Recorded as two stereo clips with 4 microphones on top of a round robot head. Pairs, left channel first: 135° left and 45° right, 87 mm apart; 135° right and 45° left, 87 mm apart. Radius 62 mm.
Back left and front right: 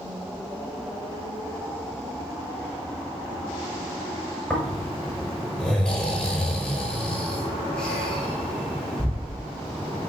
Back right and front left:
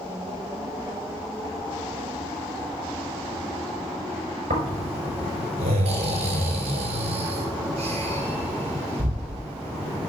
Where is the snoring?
55° left, 5 m.